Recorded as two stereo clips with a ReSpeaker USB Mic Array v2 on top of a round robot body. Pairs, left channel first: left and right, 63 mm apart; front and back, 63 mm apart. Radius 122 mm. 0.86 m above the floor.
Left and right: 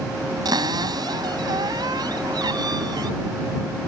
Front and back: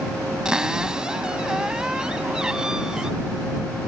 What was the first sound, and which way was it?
A cupboard door, 100° right.